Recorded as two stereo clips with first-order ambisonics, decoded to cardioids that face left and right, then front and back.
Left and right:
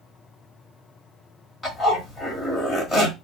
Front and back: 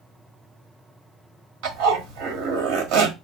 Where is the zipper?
Straight behind, 1.3 m.